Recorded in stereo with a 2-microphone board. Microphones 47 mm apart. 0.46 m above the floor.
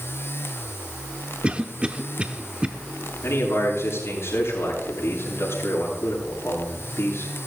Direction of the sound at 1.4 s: 20° right (ahead or behind).